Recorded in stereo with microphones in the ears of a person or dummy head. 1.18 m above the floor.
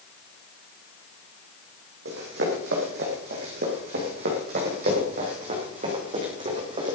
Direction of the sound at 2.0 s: 70° right (ahead or behind).